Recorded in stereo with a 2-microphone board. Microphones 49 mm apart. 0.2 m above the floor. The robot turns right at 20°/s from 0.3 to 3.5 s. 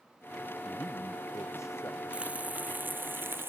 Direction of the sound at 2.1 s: 25° right (ahead or behind).